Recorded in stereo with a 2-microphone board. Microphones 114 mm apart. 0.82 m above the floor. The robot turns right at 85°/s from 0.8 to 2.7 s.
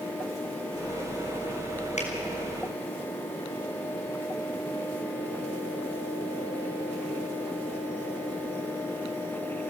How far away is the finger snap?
About 5 m.